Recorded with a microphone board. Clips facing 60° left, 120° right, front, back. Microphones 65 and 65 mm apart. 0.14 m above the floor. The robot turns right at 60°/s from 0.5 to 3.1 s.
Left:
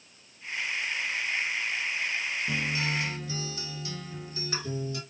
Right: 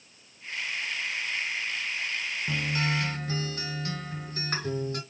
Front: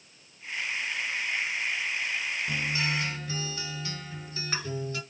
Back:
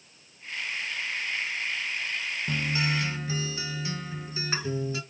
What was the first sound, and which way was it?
A guitar, 145° right.